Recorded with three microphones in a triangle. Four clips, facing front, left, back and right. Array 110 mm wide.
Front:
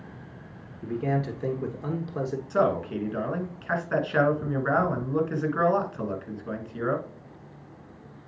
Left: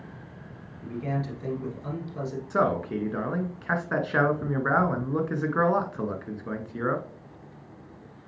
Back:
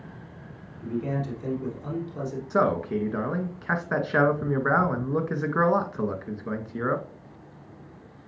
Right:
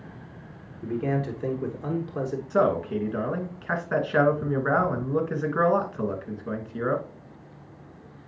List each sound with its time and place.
0.8 s a man speaking: 45° right, 2 m
2.5 s a man speaking: 160° left, 1.4 m